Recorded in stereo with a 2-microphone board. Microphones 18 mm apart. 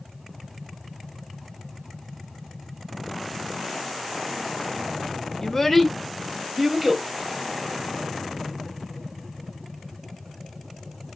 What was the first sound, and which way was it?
A child speaking, 25° left (ahead or behind).